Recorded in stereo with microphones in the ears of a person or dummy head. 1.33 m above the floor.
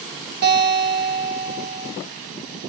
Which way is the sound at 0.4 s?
50° right (ahead or behind).